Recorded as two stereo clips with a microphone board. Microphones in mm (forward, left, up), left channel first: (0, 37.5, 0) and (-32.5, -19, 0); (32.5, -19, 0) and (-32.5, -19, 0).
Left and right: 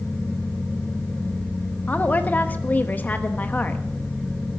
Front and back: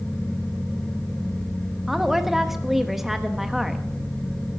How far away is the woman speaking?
About 1.0 m.